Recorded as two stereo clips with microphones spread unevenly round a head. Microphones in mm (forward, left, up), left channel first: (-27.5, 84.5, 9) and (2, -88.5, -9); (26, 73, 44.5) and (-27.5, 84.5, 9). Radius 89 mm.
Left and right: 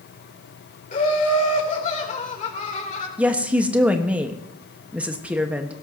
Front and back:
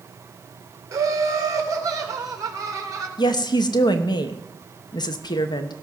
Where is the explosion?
I don't hear an explosion.